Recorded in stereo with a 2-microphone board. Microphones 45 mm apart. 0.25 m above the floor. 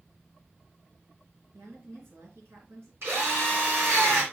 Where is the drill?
65° right (ahead or behind), 3.5 m.